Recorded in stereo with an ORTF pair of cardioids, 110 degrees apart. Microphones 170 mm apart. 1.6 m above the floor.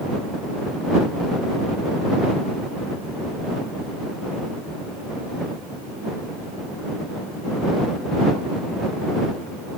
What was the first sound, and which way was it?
Only background noise.